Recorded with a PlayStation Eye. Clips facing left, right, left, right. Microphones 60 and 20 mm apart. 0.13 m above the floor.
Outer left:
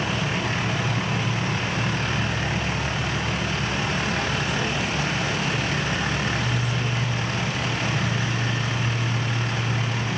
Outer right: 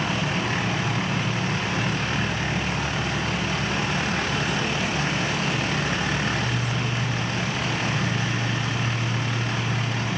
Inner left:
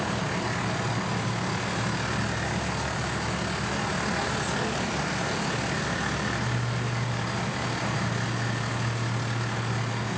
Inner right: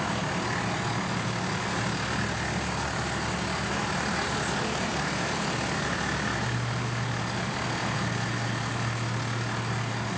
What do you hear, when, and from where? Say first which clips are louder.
0.0 s an insect: even, even; 60° left (ahead or behind), 1.7 m